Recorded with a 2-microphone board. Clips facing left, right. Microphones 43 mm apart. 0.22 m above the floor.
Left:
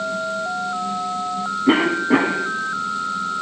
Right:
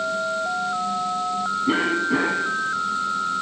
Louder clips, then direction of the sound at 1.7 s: Left 6 dB; 45° left (ahead or behind).